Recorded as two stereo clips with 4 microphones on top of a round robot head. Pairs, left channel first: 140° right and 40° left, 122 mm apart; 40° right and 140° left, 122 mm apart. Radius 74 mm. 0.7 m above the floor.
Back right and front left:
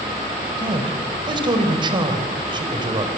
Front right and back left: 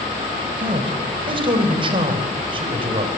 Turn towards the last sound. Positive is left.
turn(degrees=90)